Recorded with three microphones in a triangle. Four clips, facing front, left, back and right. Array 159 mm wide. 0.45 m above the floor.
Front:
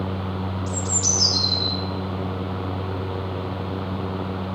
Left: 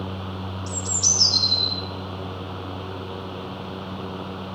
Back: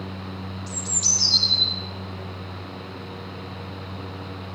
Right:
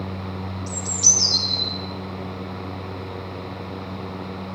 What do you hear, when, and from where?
0.7 s a bird: 140° left, 4 m